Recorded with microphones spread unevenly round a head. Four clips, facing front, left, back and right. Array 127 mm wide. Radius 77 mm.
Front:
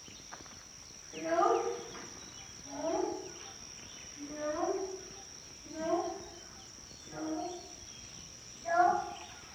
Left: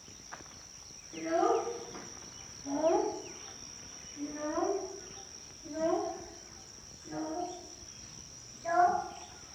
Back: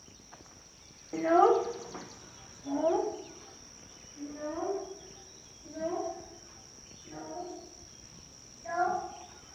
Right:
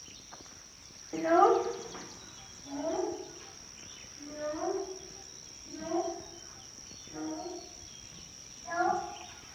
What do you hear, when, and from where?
1.1 s a child speaking: 155° right, 1.0 m; by 9.0 s 100° left, 4.5 m